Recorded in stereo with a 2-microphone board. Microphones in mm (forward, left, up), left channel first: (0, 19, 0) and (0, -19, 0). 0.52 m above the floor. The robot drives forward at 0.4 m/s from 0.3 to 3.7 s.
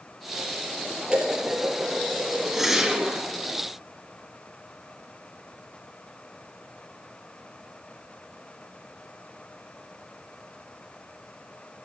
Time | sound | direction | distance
1.1 | dishes clattering | 30° right (ahead or behind) | 6.5 m
2.5 | a whoosh | 10° right (ahead or behind) | 3 m